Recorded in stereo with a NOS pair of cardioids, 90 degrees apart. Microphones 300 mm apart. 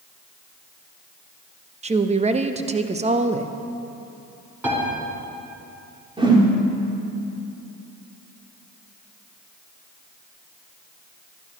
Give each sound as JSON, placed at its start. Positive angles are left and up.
{"t": 1.8, "sound": "a woman speaking", "azimuth_deg": -20, "distance_m": 1.0}
{"t": 4.6, "sound": "a piano", "azimuth_deg": -5, "distance_m": 5.0}
{"t": 6.2, "sound": "a whoosh", "azimuth_deg": -15, "distance_m": 2.5}